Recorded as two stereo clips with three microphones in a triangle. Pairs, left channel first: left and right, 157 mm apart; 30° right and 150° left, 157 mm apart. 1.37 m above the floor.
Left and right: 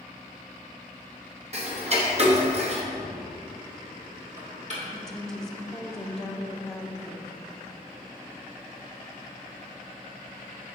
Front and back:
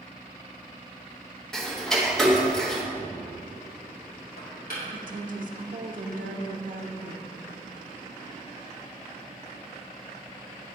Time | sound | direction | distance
1.5 | ticking | 115° right | 0.9 m
3.0 | knocking | 50° right | 2 m
4.9 | a woman speaking | 175° left | 0.6 m